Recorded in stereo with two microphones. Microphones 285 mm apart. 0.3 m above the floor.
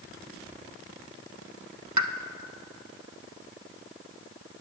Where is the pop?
80° right, 0.6 m.